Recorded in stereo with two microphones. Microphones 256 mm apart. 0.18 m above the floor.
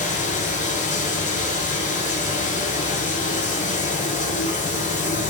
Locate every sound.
0.0 s running water: 30° left (ahead or behind), 1.5 m